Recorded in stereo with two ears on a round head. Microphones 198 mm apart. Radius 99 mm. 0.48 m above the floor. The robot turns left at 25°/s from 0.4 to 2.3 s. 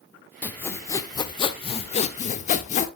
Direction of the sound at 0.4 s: 170° left.